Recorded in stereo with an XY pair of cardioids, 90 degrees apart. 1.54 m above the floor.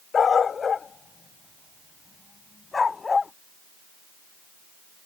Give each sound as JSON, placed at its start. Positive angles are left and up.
{"t": 0.1, "sound": "a dog barking", "azimuth_deg": 50}